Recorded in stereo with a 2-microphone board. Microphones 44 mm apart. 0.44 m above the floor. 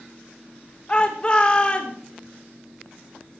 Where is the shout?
25° left (ahead or behind), 1.3 m.